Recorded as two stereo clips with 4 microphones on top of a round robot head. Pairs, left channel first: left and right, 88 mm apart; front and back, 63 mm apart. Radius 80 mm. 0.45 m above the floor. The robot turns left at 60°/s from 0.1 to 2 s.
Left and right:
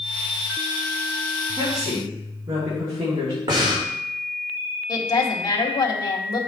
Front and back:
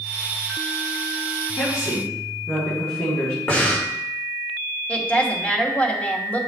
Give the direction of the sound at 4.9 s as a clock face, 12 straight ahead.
10 o'clock.